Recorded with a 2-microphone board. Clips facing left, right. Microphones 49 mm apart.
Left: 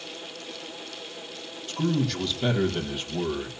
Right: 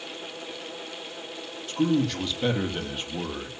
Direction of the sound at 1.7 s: 5° right (ahead or behind).